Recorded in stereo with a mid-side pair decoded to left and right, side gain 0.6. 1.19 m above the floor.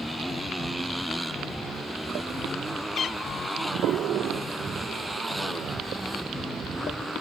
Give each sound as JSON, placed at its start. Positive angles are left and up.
{"t": 0.0, "sound": "a motorcycle", "azimuth_deg": 5}
{"t": 3.0, "sound": "a cat meowing", "azimuth_deg": 45}